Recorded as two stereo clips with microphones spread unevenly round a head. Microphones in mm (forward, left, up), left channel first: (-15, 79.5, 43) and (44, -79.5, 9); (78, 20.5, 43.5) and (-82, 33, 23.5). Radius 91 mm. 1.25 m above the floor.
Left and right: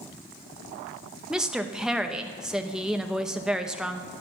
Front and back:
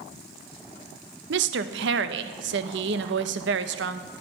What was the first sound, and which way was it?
A woman speaking, 160° right.